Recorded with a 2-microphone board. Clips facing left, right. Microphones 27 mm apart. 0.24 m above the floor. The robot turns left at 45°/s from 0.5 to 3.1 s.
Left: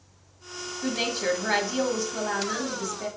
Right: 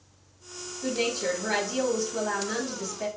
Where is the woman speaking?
55° left, 1.1 m; by 3.1 s 45° right, 1.1 m.